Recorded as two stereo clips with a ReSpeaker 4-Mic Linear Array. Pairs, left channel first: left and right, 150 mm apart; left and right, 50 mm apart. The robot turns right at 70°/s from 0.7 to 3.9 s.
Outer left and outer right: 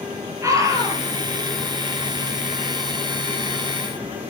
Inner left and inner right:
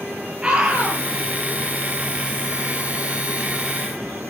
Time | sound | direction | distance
0.4 | a scream | 20° right (ahead or behind) | 5 m